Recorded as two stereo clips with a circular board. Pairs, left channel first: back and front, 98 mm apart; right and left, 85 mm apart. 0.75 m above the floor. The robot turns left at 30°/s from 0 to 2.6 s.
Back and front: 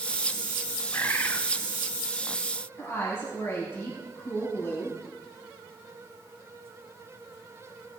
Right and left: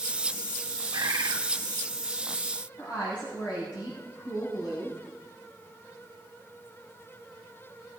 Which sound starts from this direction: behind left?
A bird, at 0.9 s.